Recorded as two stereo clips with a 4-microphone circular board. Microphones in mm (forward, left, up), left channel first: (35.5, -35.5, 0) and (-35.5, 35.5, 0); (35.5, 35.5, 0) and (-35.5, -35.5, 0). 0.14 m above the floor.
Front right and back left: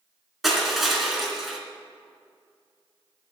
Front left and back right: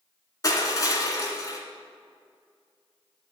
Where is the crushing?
50° left, 2.0 m.